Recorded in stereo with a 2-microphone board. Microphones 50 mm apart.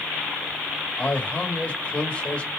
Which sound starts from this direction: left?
A man speaking, at 1.0 s.